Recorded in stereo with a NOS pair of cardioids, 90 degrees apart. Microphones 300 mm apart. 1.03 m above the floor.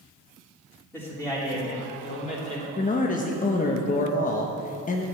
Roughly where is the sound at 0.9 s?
Ahead.